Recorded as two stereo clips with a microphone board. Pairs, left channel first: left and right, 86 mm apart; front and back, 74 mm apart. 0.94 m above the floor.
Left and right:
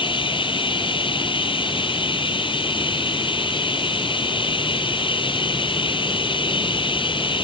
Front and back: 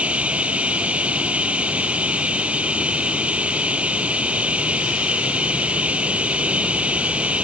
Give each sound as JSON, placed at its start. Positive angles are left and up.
{"t": 0.0, "sound": "running water", "azimuth_deg": 105}